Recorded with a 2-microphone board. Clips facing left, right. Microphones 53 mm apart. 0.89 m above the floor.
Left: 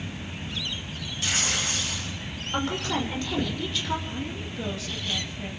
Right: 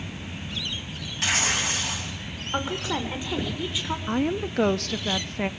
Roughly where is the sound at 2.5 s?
Centre.